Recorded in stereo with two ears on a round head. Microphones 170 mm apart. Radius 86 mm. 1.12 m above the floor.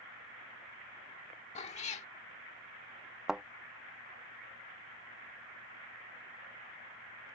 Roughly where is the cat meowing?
Left.